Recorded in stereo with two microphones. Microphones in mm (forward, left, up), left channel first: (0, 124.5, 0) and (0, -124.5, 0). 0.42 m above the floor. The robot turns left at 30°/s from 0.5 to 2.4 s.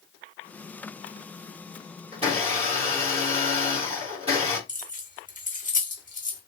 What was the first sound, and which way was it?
A blender, 25° right (ahead or behind).